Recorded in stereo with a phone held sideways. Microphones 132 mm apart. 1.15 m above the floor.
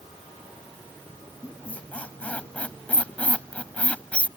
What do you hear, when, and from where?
1.4 s a squeak: 10° left (ahead or behind)